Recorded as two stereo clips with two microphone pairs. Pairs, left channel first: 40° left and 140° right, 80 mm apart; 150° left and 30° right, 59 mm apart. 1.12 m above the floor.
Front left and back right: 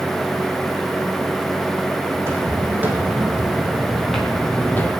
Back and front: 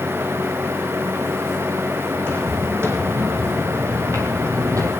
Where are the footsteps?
80° right, 3.5 m; by 4.9 s 15° right, 2 m.